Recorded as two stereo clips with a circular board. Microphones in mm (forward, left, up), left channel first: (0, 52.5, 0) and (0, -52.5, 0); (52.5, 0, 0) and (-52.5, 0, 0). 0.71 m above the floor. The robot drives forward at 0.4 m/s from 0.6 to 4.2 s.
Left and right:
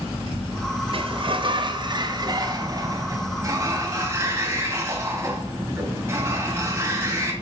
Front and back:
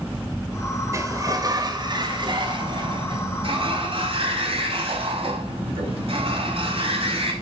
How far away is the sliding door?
About 1.0 m.